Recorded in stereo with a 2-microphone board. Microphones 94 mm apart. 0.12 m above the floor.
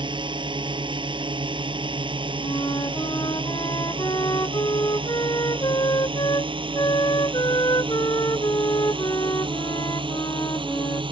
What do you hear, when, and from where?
0.0 s a drone: 55° right (ahead or behind); by 11.1 s 60° right (ahead or behind)
2.4 s a flute: 45° left (ahead or behind)